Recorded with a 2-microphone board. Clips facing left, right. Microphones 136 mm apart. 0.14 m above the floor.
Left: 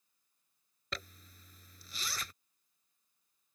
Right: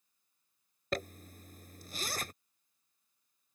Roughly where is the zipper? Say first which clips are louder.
Right 10 dB; right.